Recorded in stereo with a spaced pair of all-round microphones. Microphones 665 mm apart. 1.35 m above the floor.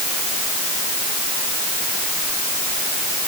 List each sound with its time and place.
Only background noise.